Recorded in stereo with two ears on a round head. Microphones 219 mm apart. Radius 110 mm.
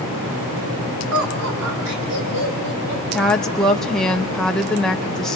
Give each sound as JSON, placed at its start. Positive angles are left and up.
{"t": 1.1, "sound": "laughter", "side_deg": -60, "distance_m": 2.5}
{"t": 3.1, "sound": "a woman speaking", "side_deg": 0, "distance_m": 0.7}